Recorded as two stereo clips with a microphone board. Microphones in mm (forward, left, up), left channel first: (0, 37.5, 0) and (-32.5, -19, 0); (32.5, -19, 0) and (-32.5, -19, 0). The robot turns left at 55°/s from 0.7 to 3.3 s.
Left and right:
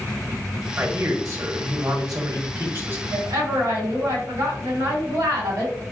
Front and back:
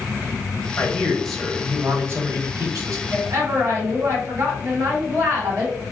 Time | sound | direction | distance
0.8 | a man speaking | 55° right | 1.1 m
3.1 | a woman speaking | 130° right | 1.5 m